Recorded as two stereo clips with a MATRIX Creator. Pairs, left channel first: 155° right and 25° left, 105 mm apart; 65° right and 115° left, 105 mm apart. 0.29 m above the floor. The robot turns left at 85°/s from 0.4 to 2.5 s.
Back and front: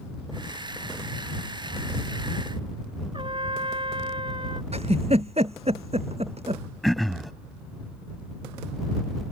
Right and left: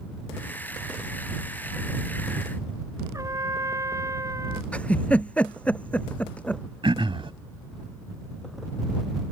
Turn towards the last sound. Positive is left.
turn(degrees=115)